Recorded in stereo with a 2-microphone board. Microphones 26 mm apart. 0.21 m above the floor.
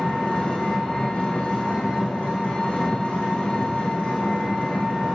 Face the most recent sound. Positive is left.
turn(degrees=65)  # may be behind; listen again after turning